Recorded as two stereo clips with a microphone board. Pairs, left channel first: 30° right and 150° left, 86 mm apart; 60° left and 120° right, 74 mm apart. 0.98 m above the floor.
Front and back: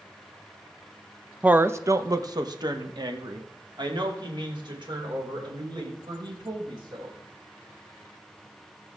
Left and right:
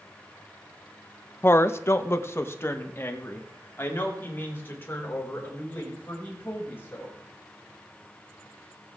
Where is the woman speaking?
85° left, 0.6 m; by 7.1 s 125° left, 5.5 m.